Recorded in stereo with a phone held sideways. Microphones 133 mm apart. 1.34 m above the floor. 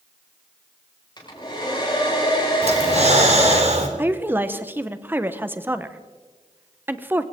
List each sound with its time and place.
1.2 s a hair dryer: 35° left (ahead or behind), 5.5 m
2.6 s breathing: 55° right (ahead or behind), 2 m
4.0 s a woman speaking: 15° right (ahead or behind), 1.0 m